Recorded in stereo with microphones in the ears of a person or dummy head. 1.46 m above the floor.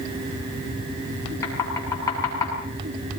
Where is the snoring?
I don't hear snoring.